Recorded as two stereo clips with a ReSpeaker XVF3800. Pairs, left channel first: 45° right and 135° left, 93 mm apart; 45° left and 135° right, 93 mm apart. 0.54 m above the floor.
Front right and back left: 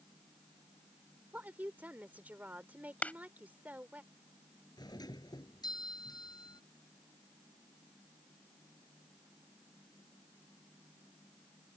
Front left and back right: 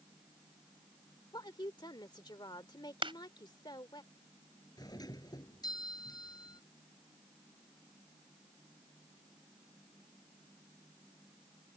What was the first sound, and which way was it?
A woman speaking, 65° left.